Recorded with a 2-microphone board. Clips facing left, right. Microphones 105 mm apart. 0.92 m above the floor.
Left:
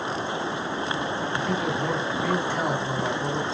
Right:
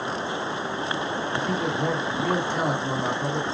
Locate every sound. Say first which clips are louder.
1.3 s a man speaking: right 1 dB; 30° right (ahead or behind), 2 m